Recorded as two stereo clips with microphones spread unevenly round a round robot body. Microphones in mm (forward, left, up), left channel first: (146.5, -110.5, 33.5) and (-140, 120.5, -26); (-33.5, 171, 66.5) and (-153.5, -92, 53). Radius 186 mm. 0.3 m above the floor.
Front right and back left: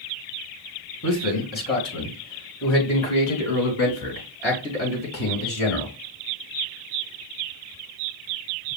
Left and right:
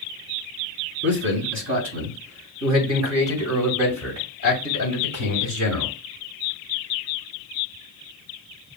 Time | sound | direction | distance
1.0 | a man speaking | 115° right | 1.8 m